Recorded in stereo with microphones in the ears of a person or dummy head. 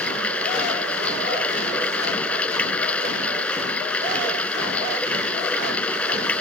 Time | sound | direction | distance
0.0 | running water | 5° left (ahead or behind) | ?